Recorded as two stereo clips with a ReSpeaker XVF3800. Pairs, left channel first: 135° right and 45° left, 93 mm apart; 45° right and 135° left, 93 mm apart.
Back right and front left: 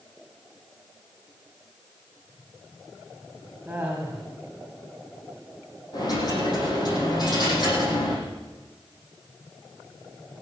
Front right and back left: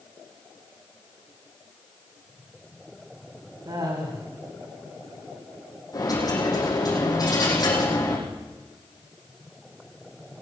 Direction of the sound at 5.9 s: 95° right.